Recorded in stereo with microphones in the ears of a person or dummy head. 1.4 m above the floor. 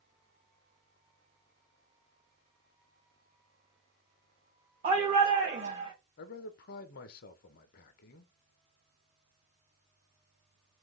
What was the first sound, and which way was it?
A shout, 35° right (ahead or behind).